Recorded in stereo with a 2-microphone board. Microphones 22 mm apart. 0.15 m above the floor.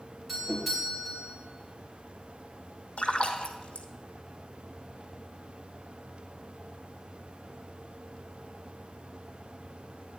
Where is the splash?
70° left (ahead or behind), 1.2 m.